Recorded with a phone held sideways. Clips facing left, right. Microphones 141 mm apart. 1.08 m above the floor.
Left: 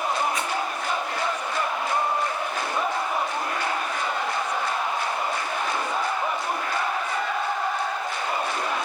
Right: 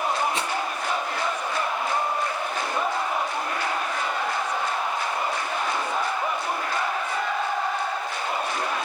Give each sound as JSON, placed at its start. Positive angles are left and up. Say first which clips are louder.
{"t": 0.3, "sound": "a rattle", "louder": "even", "side_deg": -30, "distance_m": 5.5}